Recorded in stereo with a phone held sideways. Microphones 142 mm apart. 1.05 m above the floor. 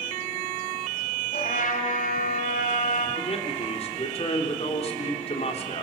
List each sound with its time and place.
1.3 s a trumpet: 70° left (ahead or behind), 3.5 m
3.2 s a man speaking: 45° left (ahead or behind), 3.5 m